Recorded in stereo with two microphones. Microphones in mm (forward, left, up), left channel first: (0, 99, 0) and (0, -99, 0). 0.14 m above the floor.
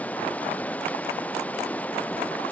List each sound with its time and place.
0.0 s running water: 5° left (ahead or behind)